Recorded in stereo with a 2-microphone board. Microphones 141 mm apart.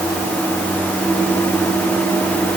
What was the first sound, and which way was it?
Only background noise.